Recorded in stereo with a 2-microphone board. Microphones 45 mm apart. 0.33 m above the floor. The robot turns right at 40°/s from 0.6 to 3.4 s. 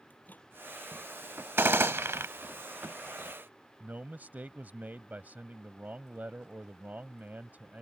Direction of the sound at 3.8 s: 40° right (ahead or behind).